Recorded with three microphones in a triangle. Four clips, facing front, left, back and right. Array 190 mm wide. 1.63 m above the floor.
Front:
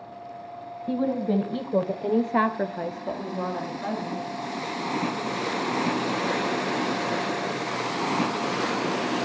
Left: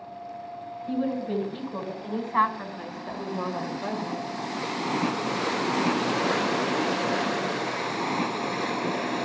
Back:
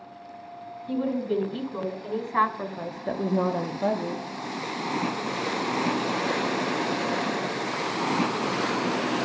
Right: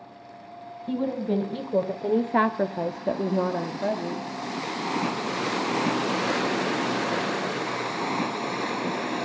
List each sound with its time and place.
0.9 s a woman speaking: 20° right, 2.0 m; by 4.3 s 155° right, 1.5 m